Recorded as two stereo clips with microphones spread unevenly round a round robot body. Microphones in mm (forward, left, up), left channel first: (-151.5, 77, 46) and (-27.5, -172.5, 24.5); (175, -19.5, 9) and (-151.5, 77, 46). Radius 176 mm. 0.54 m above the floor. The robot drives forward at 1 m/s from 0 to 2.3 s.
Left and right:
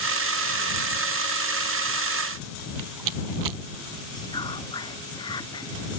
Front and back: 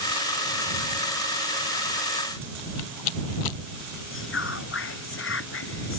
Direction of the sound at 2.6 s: 45° right.